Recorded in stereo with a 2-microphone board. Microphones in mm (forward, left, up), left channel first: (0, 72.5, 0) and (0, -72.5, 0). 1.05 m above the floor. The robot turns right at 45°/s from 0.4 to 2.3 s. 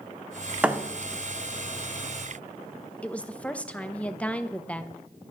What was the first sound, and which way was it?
A thud, 10° right (ahead or behind).